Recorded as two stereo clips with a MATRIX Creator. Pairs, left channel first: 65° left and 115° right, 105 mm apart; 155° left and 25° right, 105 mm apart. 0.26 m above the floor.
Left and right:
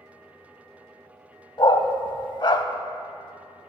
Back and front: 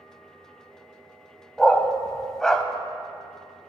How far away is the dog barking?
About 0.5 m.